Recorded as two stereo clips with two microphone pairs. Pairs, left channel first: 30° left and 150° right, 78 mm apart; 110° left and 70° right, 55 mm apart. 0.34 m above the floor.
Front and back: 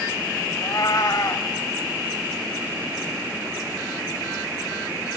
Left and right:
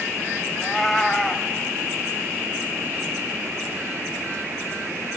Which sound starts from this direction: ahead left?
A cat meowing, at 0.6 s.